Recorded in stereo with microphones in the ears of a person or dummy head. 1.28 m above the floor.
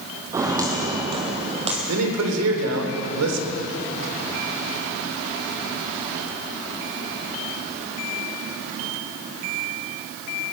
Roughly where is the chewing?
I don't hear chewing.